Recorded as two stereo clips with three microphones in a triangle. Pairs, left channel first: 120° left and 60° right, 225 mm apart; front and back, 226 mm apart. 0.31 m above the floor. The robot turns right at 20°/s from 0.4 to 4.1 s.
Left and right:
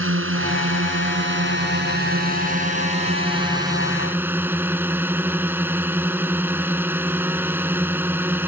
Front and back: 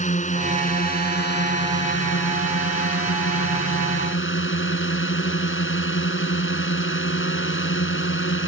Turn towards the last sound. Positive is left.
turn(degrees=20)